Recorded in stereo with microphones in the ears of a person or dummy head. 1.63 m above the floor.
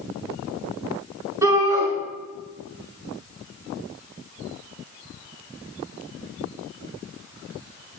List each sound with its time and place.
1.4 s a shout: 15° right (ahead or behind), 3 m